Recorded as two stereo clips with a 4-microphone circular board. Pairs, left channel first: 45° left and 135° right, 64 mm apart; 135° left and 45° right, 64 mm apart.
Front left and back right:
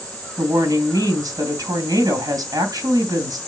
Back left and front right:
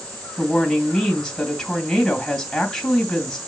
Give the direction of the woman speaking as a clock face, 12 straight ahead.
5 o'clock.